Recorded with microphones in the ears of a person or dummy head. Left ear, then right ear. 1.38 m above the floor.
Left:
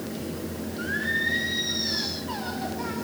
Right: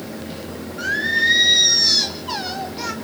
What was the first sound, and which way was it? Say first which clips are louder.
Singing: right 8 dB; 45° right (ahead or behind).